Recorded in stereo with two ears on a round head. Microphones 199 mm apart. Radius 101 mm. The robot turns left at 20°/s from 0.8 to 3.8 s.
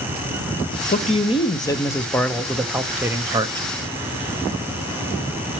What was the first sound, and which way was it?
A man speaking, 30° left.